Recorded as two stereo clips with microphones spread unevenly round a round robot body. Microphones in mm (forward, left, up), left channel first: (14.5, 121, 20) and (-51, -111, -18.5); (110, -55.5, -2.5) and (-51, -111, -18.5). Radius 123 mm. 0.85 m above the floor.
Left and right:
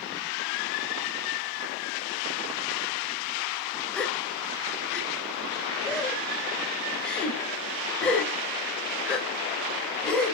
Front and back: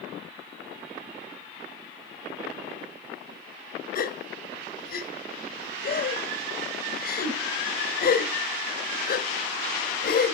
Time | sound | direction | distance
4.0 | a gasp | 15° right | 2.5 m